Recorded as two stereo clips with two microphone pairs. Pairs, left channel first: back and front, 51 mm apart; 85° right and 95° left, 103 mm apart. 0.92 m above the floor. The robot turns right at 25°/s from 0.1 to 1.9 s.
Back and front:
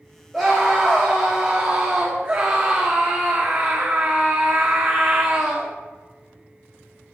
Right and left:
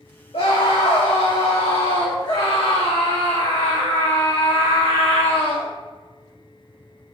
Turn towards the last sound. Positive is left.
turn(degrees=-50)